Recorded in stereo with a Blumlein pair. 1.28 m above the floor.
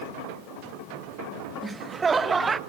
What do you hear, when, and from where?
1.6 s laughter: 20° right, 0.6 m